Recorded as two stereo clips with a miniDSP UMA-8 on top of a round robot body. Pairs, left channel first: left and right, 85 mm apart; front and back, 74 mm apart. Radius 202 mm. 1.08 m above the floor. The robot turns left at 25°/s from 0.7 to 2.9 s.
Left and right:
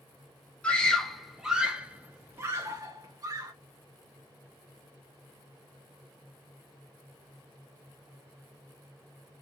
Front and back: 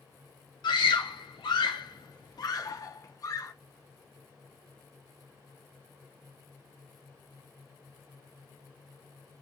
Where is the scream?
10° left, 0.7 m; by 3.5 s 45° right, 0.7 m.